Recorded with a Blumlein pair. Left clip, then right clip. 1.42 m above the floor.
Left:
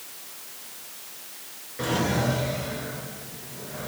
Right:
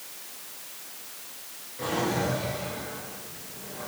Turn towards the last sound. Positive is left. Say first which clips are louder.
# left 2 dB
turn(degrees=70)